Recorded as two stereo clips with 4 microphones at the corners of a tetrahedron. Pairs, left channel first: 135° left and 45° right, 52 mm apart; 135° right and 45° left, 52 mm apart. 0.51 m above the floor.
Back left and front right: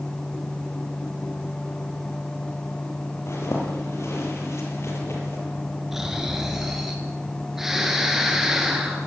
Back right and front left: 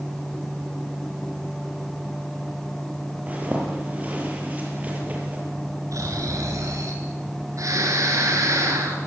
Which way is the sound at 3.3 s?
105° left.